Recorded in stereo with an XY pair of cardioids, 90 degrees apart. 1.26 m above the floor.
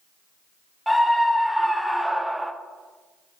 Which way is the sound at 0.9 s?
Straight ahead.